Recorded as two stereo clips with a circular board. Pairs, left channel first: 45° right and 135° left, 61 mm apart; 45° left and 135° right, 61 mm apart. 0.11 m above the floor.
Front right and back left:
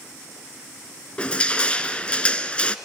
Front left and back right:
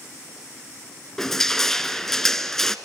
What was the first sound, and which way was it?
Crushing, 25° right.